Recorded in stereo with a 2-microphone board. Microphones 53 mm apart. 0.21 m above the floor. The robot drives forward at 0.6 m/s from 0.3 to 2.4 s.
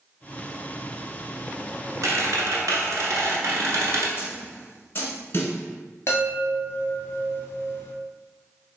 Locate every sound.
2.0 s a squeak: 70° right (ahead or behind), 1.0 m; by 4.1 s 65° right (ahead or behind), 1.0 m
4.2 s a snare drum: 40° left (ahead or behind), 1.1 m
6.1 s a chime: 45° left (ahead or behind), 1.4 m